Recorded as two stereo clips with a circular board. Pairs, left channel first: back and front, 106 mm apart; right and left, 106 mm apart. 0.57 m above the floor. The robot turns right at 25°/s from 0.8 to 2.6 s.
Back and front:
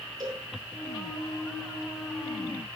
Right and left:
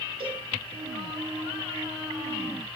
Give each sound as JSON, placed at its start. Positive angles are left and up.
{"t": 0.2, "sound": "a cowbell", "azimuth_deg": 50, "distance_m": 6.0}